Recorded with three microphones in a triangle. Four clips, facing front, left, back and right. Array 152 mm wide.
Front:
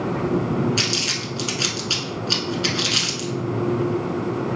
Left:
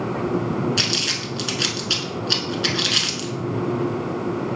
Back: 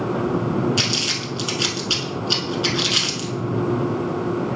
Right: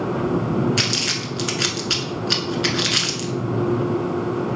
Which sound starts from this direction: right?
Crumpling, at 0.8 s.